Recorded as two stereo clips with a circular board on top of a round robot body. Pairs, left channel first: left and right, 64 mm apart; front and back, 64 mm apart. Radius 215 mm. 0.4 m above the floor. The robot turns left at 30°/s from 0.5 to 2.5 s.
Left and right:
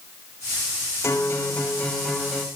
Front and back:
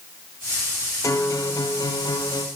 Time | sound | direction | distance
1.0 | a guitar | 40° left | 1.9 m